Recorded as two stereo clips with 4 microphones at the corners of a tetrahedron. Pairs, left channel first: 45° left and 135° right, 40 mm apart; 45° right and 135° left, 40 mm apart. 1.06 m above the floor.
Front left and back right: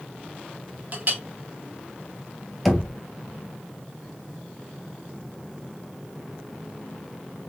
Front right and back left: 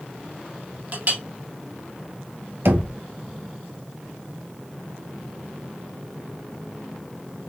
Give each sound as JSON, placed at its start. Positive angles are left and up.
{"t": 0.9, "sound": "a clink", "azimuth_deg": -175, "distance_m": 0.9}
{"t": 2.6, "sound": "knocking", "azimuth_deg": 135, "distance_m": 0.6}